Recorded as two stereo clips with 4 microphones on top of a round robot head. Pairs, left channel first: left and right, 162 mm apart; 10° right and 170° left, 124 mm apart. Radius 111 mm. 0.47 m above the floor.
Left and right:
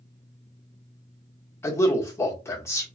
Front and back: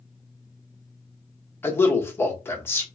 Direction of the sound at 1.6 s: 35° left.